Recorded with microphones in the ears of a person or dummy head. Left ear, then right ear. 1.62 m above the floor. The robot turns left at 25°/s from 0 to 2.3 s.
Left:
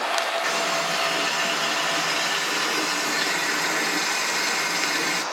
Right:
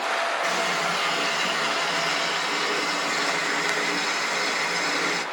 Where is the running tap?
160° right, 1.2 m; by 5.2 s 150° left, 1.2 m.